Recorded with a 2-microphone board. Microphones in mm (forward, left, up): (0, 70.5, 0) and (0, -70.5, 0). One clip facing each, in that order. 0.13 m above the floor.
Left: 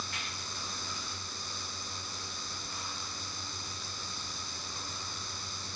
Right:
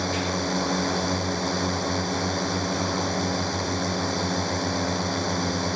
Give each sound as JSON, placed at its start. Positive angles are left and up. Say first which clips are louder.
{"t": 0.0, "sound": "a drone", "louder": "right 18 dB", "side_deg": -70}